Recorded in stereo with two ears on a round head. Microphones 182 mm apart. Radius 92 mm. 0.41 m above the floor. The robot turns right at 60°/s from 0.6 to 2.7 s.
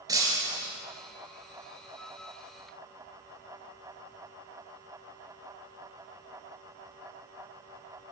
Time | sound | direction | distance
0.1 | breaking glass | 20° right (ahead or behind) | 3.5 m